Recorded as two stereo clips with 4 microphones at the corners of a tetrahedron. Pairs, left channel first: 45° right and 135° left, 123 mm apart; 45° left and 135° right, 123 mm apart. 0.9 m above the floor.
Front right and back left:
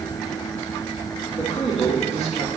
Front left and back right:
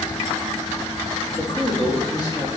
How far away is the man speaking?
About 1.7 m.